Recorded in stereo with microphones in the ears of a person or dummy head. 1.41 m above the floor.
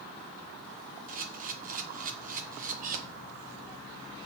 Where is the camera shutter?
40° right (ahead or behind), 0.9 m.